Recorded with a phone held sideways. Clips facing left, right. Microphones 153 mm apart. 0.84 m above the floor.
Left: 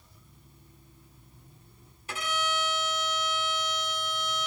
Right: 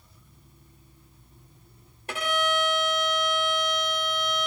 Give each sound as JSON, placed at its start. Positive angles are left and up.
{"t": 2.1, "sound": "a violin", "side_deg": -65, "distance_m": 1.3}